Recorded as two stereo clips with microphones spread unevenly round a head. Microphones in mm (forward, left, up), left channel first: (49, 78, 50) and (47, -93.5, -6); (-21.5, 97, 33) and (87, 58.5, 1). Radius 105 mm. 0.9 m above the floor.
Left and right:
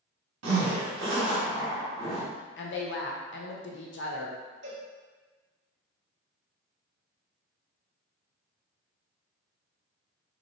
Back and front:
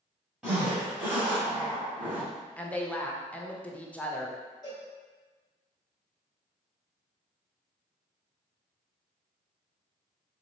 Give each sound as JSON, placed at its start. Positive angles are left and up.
{"t": 0.4, "sound": "a zipper", "azimuth_deg": -115, "distance_m": 1.2}
{"t": 2.6, "sound": "a woman speaking", "azimuth_deg": 75, "distance_m": 0.6}
{"t": 4.6, "sound": "a cowbell", "azimuth_deg": -130, "distance_m": 0.8}